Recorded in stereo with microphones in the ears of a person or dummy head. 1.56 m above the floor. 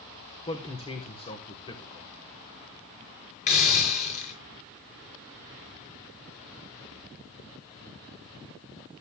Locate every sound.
0.5 s a man speaking: 30° left (ahead or behind), 1.7 m
3.5 s a hiss: 30° left (ahead or behind), 7.5 m